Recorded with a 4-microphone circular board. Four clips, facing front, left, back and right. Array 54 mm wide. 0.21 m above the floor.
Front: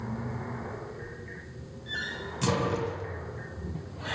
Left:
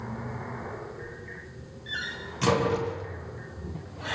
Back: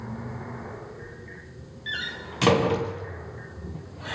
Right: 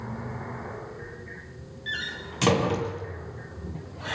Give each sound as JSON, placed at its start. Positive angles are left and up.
{"t": 1.9, "sound": "a door slam", "azimuth_deg": -155, "distance_m": 3.0}